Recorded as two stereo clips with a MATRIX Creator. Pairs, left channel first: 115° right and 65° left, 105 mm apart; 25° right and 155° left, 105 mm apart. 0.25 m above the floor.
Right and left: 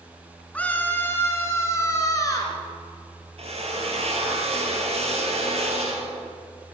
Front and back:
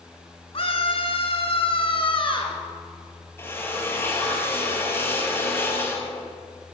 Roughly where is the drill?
Ahead left.